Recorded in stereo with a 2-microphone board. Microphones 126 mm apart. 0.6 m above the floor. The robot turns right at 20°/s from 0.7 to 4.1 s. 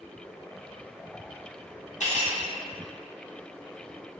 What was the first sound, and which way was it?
Cutlery clinking, 75° left (ahead or behind).